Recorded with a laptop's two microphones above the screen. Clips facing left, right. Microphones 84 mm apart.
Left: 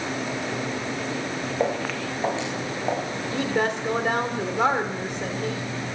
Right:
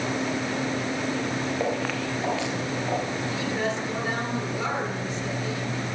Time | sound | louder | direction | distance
1.6 | footsteps | left 1 dB | 25° left (ahead or behind) | 2.5 m
3.3 | a woman speaking | left 6 dB | 60° left (ahead or behind) | 2.5 m